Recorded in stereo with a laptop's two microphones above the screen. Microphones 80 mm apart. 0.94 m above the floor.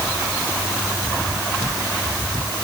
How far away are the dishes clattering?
No dishes clattering in this recording.